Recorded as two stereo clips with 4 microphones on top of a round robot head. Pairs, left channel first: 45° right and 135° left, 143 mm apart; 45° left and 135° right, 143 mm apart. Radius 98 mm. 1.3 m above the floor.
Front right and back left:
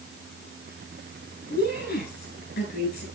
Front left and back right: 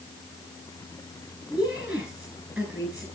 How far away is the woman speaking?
About 9.5 m.